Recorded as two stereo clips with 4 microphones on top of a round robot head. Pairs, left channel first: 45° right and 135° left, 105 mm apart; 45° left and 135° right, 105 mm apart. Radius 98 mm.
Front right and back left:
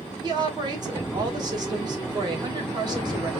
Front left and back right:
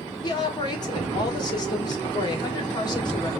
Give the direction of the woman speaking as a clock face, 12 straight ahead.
9 o'clock.